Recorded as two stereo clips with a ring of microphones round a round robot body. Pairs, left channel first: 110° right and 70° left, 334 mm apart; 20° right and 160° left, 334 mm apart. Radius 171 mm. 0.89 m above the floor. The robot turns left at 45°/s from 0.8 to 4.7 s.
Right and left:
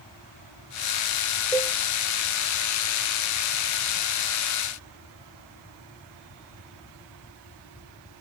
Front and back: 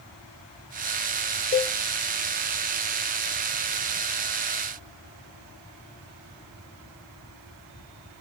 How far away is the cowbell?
About 0.5 m.